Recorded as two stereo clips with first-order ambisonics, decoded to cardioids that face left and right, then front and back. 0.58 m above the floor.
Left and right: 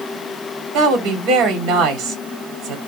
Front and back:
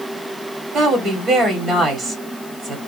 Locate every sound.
0.7 s a woman speaking: 115° right, 1.6 m